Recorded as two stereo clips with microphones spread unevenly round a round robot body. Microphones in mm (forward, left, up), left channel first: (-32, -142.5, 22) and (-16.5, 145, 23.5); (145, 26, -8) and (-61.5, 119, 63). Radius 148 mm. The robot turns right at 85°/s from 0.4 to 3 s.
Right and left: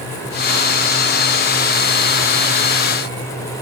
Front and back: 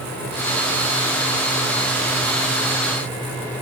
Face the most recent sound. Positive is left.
No sound to turn to.